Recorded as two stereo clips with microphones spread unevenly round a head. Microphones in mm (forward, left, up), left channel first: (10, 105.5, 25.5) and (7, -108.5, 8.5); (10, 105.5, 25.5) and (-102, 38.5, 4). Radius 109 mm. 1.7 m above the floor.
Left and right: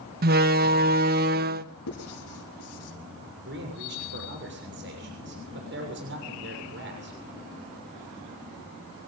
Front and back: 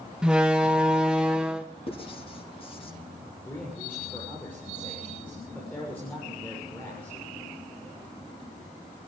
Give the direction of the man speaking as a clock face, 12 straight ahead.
2 o'clock.